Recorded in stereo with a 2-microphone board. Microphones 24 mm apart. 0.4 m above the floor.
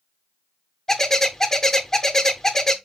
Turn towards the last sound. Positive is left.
turn(degrees=20)  # may be behind; listen again after turning